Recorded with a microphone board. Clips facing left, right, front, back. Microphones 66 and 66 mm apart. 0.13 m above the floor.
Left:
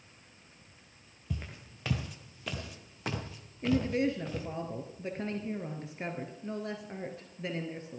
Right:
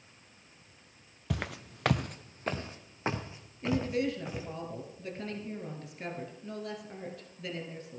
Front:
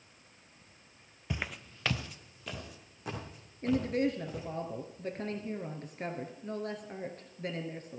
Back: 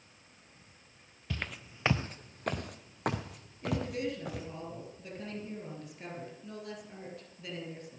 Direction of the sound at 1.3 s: 75° right.